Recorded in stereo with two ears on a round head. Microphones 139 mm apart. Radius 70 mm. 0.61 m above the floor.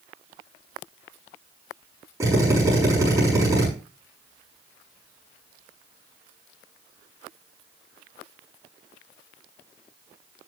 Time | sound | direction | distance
2.2 | a drill | 20° right (ahead or behind) | 7 m